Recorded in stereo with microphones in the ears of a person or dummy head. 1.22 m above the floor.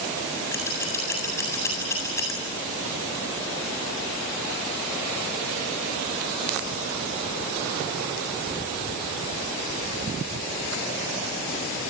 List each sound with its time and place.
0.5 s scissors: 15° left (ahead or behind), 8.5 m